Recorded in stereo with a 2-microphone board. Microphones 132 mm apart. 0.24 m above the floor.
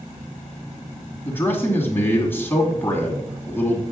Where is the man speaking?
15° left (ahead or behind), 2 m.